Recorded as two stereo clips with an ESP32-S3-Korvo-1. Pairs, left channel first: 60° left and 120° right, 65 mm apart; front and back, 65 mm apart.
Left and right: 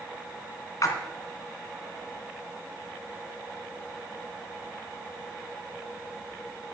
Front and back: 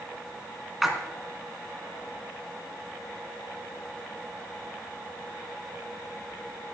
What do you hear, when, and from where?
0.8 s a splash: 95° left, 2 m